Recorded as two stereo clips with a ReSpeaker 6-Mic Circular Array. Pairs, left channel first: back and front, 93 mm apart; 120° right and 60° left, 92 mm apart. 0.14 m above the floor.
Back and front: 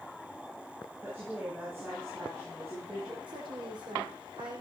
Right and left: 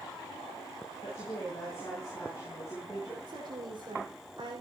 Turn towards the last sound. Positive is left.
turn(degrees=25)